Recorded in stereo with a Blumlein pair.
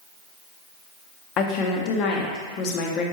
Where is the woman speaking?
35° left, 0.8 m.